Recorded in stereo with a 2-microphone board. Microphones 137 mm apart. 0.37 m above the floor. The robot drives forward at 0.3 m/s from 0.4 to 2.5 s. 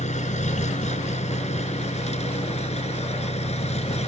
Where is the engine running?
55° left (ahead or behind); by 4.1 s 50° left (ahead or behind).